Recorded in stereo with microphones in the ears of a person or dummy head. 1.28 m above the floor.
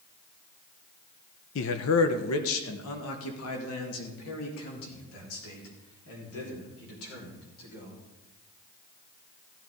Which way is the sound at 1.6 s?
60° left (ahead or behind).